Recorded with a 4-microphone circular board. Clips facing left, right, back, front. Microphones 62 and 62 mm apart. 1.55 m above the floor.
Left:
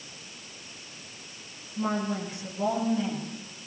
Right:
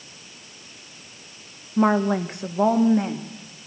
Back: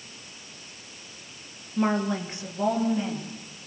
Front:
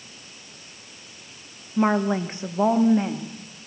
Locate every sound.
1.8 s a woman speaking: 70° right, 1.5 m; by 3.7 s 45° right, 3.5 m